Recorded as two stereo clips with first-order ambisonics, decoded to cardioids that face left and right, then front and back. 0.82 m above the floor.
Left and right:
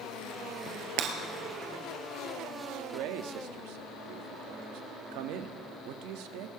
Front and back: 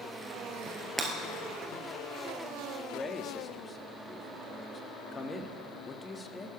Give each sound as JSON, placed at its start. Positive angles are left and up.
{"t": 1.0, "sound": "breaking glass", "azimuth_deg": -95, "distance_m": 3.0}
{"t": 2.9, "sound": "a man speaking", "azimuth_deg": -75, "distance_m": 1.0}